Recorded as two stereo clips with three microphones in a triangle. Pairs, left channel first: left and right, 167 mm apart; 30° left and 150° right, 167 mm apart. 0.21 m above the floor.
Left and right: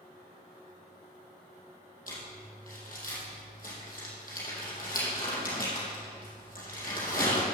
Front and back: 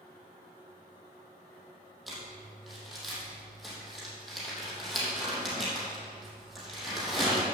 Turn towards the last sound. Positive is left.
turn(degrees=120)